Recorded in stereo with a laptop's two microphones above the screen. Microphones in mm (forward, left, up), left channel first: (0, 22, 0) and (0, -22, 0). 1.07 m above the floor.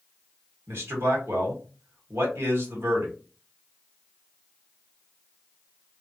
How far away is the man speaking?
About 1.6 m.